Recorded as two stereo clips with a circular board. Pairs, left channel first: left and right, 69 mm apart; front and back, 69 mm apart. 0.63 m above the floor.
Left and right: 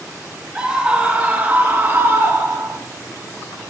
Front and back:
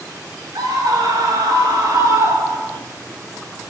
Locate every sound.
0.6 s a scream: 165° right, 4 m; by 2.8 s 135° right, 3.5 m